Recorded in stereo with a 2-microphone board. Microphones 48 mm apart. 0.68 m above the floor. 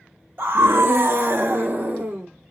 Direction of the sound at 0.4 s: 55° right (ahead or behind).